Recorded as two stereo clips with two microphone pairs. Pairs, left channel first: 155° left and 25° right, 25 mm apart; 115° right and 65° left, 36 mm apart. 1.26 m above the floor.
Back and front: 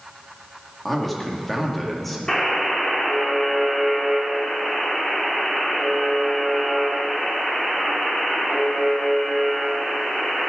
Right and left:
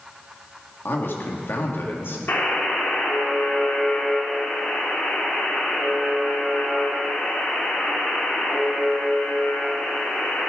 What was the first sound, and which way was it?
A man speaking, 115° right.